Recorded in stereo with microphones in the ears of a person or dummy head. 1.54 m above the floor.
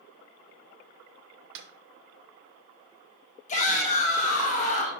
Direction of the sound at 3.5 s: 40° left (ahead or behind).